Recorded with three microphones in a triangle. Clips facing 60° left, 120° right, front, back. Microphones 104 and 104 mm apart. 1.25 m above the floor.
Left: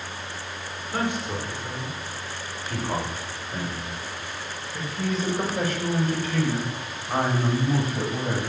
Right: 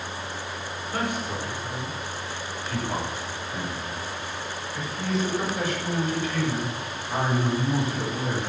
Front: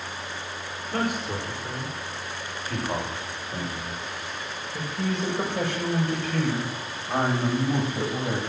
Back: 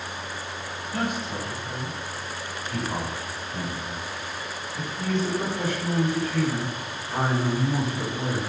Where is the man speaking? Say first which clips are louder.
Left 2 dB, front 1 dB; 10° right, 5.5 m; by 8.4 s 15° left, 8.5 m.